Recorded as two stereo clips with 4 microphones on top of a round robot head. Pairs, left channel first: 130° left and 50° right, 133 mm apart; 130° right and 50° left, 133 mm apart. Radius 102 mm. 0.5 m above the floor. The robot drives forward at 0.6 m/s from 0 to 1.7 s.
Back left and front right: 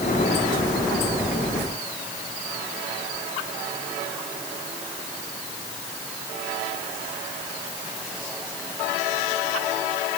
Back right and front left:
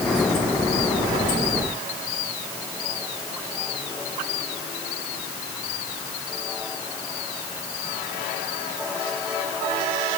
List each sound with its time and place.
Only background noise.